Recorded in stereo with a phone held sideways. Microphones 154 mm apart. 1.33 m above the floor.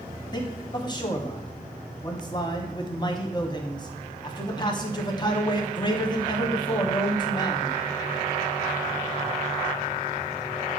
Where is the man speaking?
30° left (ahead or behind), 1.0 m.